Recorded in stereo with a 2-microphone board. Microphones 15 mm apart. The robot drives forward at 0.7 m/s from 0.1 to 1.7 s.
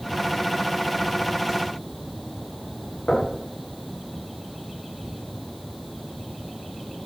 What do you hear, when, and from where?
3.1 s knocking: 75° left (ahead or behind), 8.5 m